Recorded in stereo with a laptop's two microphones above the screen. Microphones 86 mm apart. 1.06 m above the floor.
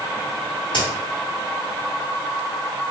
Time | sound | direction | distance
0.7 | a crack | 70° left (ahead or behind) | 2 m